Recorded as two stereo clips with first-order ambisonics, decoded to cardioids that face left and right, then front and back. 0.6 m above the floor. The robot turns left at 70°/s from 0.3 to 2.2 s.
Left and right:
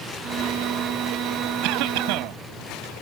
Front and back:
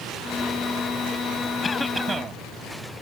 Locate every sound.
1.6 s a cough: 70° right; by 2.4 s 110° right